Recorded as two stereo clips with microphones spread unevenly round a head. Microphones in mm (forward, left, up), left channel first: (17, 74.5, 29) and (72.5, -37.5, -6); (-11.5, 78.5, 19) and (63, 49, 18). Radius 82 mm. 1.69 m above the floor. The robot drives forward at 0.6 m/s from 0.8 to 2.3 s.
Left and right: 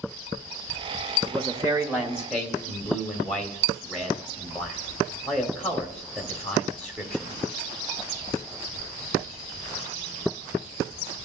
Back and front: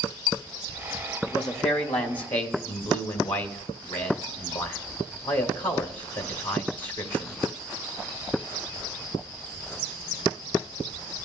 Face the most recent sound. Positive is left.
turn(degrees=-155)